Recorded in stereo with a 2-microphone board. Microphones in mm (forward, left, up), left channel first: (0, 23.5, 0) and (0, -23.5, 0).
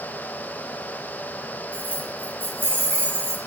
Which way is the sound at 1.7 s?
45° right (ahead or behind).